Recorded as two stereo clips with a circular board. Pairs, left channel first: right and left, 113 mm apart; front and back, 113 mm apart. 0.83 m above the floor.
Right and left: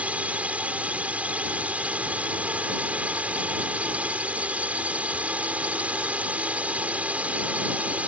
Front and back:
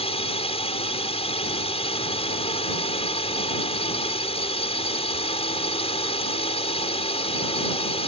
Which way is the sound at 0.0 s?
15° left.